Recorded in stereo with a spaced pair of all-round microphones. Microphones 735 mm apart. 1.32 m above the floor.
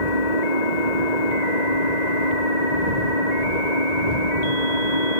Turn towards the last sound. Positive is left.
turn(degrees=65)  # may be behind; listen again after turning